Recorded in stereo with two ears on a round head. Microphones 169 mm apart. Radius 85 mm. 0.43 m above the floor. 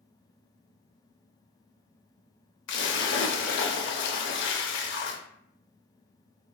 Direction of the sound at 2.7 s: 65° left (ahead or behind).